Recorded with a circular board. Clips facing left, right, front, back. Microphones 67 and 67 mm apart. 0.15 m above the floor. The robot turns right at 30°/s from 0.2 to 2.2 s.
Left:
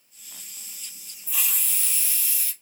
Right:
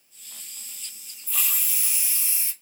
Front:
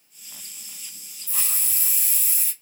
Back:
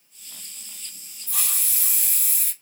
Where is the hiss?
175° left, 1.1 m; by 2.5 s 155° right, 1.1 m.